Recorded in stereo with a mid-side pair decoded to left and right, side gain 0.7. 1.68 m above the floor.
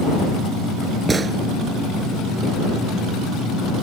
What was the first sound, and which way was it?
A gunshot, 20° right.